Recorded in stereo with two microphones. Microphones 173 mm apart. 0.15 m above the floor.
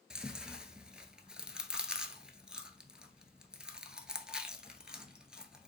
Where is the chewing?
5° right (ahead or behind), 0.6 m.